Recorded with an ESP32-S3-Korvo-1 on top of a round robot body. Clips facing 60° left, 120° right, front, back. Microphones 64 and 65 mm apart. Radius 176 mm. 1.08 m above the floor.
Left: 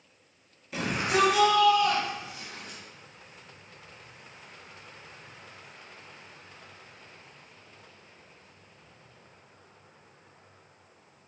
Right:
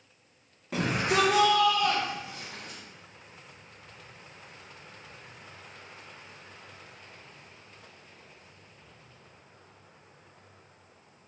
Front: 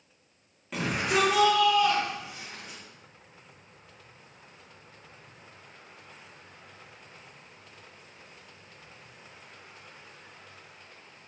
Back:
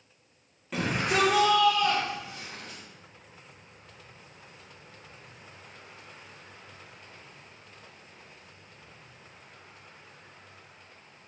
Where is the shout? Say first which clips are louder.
Even, even; 90° right, 2.5 m; by 2.8 s 85° right, 5 m.